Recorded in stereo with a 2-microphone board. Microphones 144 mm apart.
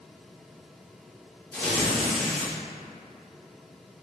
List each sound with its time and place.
1.5 s tearing paper: 15° left (ahead or behind), 1.6 m